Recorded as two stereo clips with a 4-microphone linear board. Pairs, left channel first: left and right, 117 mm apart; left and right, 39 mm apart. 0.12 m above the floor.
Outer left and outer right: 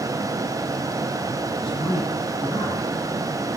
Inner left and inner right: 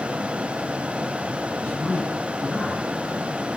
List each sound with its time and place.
1.6 s a man speaking: 45° left (ahead or behind), 2.0 m